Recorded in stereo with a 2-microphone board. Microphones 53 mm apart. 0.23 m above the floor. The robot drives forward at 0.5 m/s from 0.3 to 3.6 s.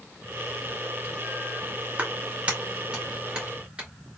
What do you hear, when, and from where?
2.0 s a clap: 25° right (ahead or behind), 2.0 m; by 3.9 s 15° right (ahead or behind), 2.5 m